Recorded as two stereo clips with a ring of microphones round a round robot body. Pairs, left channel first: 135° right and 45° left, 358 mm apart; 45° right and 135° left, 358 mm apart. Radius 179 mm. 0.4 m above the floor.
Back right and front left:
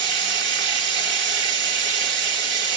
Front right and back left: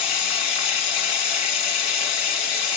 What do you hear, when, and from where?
0.0 s running water: 15° right, 2 m